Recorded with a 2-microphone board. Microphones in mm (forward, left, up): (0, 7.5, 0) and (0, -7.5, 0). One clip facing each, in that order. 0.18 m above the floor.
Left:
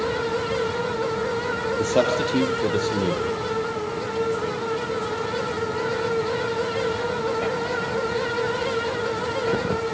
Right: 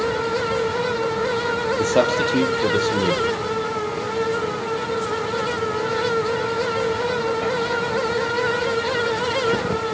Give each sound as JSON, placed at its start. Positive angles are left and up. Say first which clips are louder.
{"t": 1.8, "sound": "a man speaking", "louder": "right 2 dB", "side_deg": -10, "distance_m": 6.0}